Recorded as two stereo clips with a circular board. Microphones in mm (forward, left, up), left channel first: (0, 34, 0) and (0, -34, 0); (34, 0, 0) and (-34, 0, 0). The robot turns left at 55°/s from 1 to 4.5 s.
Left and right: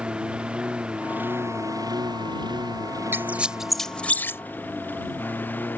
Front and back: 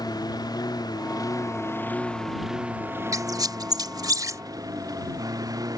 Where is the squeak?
145° right; by 4.4 s 145° left.